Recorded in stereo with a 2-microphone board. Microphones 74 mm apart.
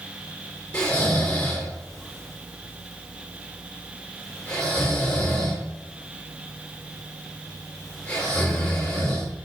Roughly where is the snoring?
Centre.